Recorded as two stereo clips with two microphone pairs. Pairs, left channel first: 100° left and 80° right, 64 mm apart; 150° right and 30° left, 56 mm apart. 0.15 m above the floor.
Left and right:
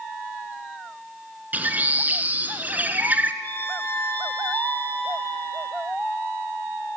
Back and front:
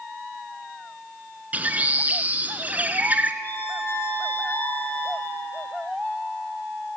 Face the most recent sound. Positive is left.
turn(degrees=160)